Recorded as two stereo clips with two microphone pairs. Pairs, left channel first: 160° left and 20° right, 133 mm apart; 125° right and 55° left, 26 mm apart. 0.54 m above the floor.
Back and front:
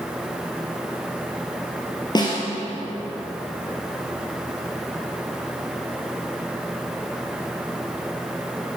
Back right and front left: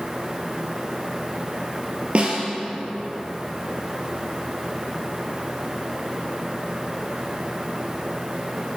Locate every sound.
2.1 s a snare drum: 105° left, 2.5 m